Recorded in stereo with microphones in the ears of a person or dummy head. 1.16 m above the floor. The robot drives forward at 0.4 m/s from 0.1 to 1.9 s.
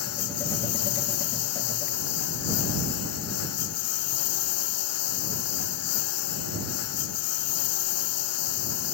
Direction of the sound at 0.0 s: 85° left.